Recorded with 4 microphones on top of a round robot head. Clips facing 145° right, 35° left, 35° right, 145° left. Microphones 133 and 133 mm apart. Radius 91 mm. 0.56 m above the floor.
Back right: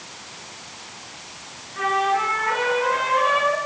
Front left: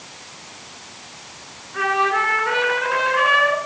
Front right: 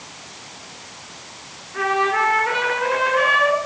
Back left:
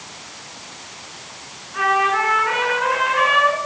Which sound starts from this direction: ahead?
A trumpet, at 1.7 s.